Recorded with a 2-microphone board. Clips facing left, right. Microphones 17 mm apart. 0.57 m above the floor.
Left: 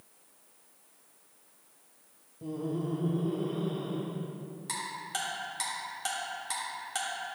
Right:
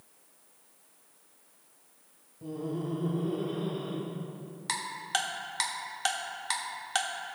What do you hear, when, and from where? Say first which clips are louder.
2.4 s laughter: left 1 dB; 10° left (ahead or behind), 0.8 m; by 4.1 s 45° right (ahead or behind), 1.4 m
4.7 s ticking: right 5 dB; 40° right (ahead or behind), 1.2 m